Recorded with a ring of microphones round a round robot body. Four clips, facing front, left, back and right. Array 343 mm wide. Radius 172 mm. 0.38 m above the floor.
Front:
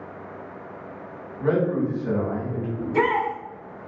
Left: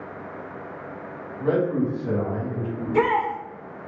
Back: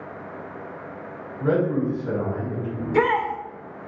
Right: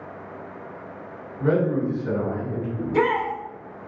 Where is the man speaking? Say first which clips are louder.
Right 1 dB, even; 35° right, 1.7 m.